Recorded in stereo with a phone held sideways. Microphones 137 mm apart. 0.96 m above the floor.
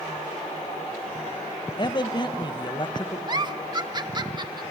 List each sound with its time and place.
1.8 s a man speaking: 35° left (ahead or behind), 0.9 m
3.3 s a giggle: 30° right (ahead or behind), 0.6 m